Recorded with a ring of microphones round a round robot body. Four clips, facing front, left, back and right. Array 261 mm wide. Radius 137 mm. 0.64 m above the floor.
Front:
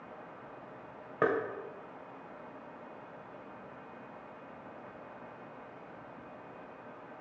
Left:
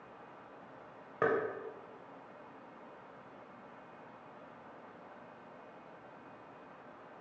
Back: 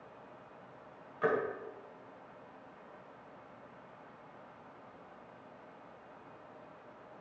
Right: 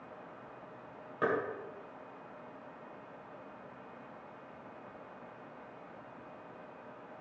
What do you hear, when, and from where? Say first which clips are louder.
1.2 s knocking: left 1 dB, front 2 dB; 15° left, 2.5 m